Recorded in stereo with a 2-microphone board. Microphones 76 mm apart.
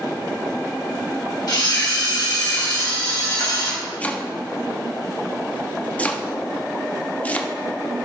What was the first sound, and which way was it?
A camera shutter, 60° left (ahead or behind).